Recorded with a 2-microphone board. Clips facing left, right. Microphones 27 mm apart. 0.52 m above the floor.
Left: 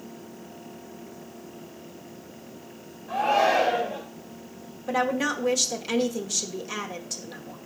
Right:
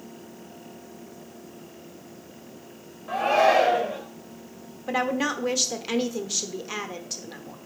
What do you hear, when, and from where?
3.1 s a shout: 65° right (ahead or behind), 2.5 m
4.9 s a woman speaking: 20° right (ahead or behind), 1.0 m